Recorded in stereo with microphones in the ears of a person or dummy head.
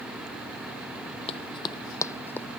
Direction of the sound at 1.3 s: 35° left (ahead or behind).